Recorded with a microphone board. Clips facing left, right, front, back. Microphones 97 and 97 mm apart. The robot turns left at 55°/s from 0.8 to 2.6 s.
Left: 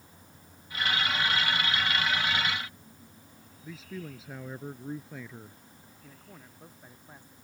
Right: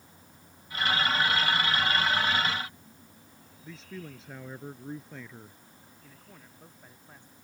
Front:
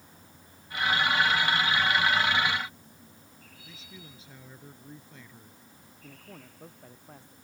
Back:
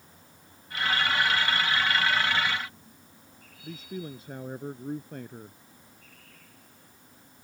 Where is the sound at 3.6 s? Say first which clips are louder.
Left 2 dB, back 14 dB; 175° left.